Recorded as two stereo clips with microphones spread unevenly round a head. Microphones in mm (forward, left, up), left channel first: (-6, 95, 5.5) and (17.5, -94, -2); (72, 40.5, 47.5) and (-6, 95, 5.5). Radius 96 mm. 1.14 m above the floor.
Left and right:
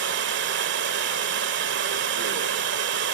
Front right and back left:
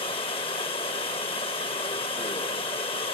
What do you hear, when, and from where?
0.0 s running water: 55° right, 1.6 m